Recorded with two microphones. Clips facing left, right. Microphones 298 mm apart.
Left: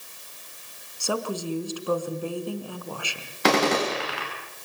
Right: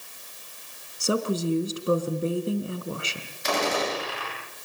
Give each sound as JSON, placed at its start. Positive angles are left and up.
{"t": 1.0, "sound": "a woman speaking", "side_deg": -25, "distance_m": 3.0}
{"t": 3.4, "sound": "a gunshot", "side_deg": 80, "distance_m": 8.5}